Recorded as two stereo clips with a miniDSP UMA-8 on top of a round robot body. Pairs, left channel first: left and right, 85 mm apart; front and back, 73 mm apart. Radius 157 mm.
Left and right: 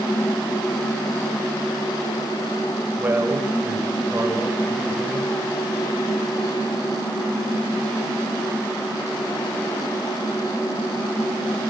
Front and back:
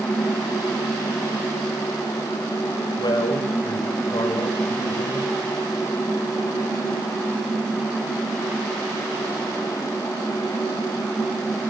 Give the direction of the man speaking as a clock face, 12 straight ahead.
1 o'clock.